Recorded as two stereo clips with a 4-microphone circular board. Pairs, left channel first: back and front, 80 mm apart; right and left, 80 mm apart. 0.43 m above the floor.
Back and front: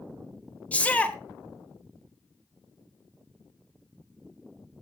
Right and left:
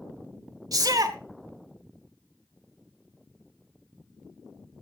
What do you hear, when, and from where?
0.7 s a shout: 110° left, 1.4 m